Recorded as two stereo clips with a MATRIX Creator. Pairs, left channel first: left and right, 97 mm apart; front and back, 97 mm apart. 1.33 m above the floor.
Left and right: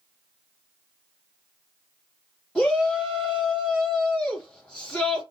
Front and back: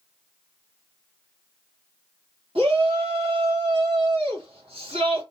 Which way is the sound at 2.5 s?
175° left.